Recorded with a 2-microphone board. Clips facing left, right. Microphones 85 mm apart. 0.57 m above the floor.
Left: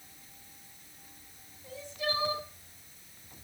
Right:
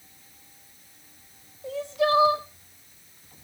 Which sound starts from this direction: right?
Crying, at 1.6 s.